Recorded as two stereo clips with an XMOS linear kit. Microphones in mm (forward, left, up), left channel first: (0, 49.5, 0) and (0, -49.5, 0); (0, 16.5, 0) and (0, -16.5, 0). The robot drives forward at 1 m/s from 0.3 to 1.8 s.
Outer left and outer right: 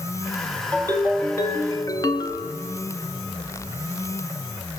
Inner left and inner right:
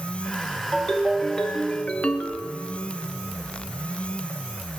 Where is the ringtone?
15° left (ahead or behind), 1.5 m; by 2.5 s 40° left (ahead or behind), 0.6 m.